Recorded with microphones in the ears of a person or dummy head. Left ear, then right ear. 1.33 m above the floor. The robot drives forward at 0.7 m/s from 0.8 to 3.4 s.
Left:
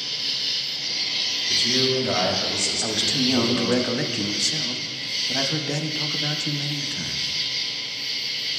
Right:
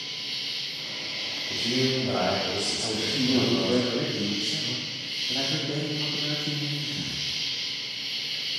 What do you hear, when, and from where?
0.0 s an insect: 60° left (ahead or behind), 1.8 m; by 8.6 s 40° left (ahead or behind), 2.5 m
1.5 s a man speaking: 70° left (ahead or behind), 1.5 m; by 3.8 s 40° left (ahead or behind), 2 m
2.8 s a man speaking: 75° left (ahead or behind), 0.8 m; by 7.3 s 70° left (ahead or behind), 0.8 m